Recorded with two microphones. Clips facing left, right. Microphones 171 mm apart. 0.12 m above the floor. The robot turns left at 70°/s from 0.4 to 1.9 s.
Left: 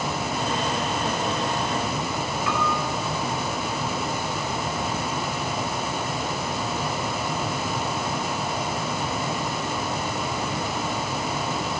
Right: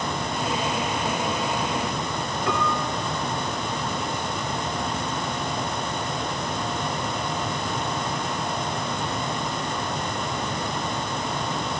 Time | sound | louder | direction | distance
2.5 | a piano | right 2 dB | 35° right (ahead or behind) | 2 m